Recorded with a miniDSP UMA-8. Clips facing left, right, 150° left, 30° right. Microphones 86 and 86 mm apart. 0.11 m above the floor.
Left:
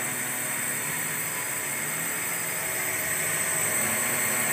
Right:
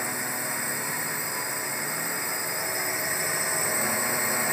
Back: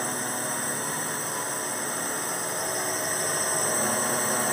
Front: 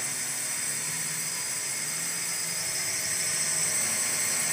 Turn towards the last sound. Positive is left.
turn(degrees=-165)